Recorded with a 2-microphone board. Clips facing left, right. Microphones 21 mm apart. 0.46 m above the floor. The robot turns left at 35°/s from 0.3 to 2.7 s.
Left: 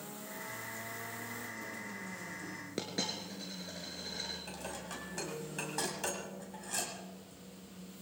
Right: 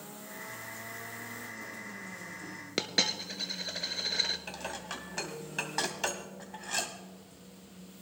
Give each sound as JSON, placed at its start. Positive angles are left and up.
{"t": 2.8, "sound": "a dropped coin", "side_deg": -80, "distance_m": 1.1}
{"t": 4.5, "sound": "dishes clattering", "side_deg": -45, "distance_m": 1.9}